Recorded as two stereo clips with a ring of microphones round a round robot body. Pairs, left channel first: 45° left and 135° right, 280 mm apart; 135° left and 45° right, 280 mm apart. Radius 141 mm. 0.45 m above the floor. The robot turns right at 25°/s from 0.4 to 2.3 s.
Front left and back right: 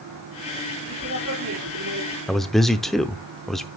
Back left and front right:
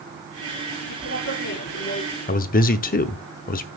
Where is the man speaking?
135° left, 0.8 m.